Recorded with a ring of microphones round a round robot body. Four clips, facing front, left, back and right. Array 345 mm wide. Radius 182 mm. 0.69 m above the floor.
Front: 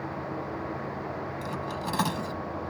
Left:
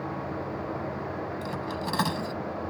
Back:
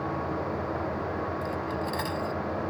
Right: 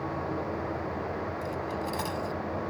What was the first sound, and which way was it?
Cutlery clinking, 50° left.